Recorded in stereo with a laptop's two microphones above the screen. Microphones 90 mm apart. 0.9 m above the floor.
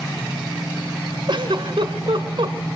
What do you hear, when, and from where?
1.3 s a giggle: 65° right (ahead or behind), 2.5 m